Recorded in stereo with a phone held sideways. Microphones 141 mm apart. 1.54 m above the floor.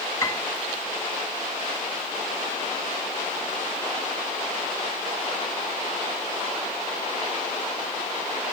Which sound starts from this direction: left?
A piano, at 0.2 s.